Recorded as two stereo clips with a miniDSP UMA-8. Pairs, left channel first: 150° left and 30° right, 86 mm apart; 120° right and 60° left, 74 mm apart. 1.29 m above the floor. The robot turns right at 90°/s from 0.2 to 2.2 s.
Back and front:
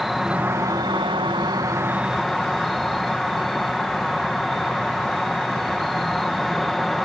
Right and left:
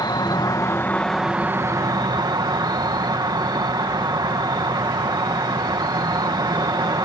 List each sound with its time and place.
0.0 s an insect: 120° right; by 7.1 s 60° left